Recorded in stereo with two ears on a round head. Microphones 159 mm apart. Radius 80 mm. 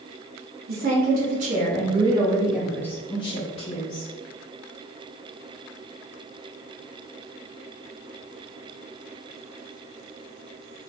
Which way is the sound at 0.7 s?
55° right (ahead or behind).